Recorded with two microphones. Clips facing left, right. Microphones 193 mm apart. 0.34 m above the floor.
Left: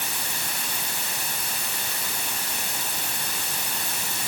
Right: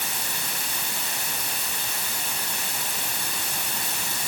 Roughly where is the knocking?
No knocking in this recording.